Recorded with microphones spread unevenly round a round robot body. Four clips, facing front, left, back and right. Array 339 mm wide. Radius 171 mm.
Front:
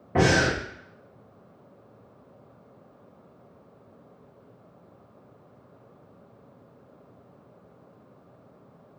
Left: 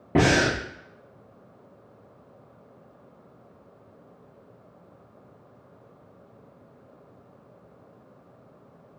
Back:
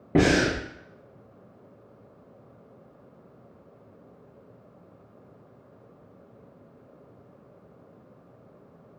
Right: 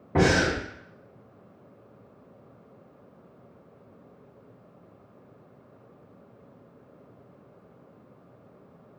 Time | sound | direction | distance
0.1 | breathing | 150° left | 0.8 m